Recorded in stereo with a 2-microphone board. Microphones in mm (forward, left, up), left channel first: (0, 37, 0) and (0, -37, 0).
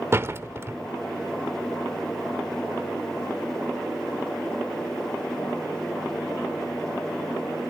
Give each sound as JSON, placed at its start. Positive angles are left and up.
{"t": 0.1, "sound": "a door slam", "side_deg": -35, "distance_m": 1.0}